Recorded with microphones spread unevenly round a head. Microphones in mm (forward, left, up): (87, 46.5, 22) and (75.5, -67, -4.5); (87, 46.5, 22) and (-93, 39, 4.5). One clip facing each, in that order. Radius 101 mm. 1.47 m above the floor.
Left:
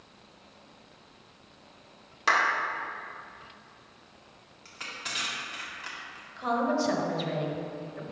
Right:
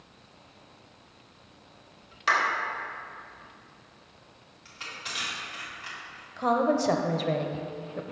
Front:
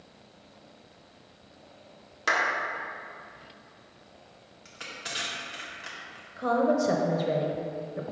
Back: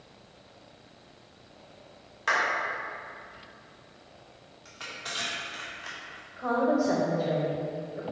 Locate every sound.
2.3 s a clap: 40° left, 1.6 m
4.7 s crushing: 60° left, 1.7 m
6.4 s a woman speaking: 55° right, 0.8 m